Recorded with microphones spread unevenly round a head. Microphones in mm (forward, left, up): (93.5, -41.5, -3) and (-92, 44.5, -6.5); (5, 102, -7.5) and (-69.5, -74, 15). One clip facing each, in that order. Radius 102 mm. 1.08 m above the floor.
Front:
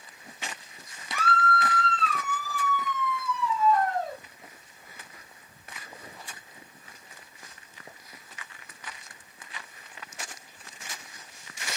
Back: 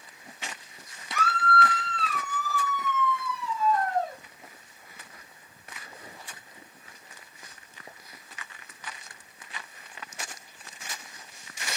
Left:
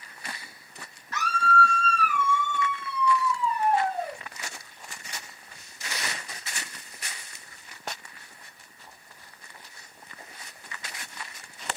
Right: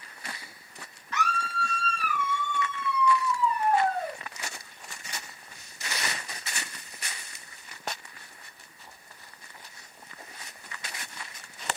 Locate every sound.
1.1 s a scream: 110° left, 1.0 m; by 4.2 s 5° right, 1.3 m